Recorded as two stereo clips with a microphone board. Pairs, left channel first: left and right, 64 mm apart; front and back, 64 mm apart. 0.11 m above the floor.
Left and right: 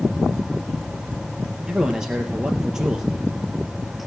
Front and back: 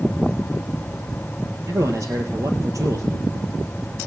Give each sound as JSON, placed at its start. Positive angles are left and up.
{"t": 1.7, "sound": "a man speaking", "azimuth_deg": -170, "distance_m": 2.0}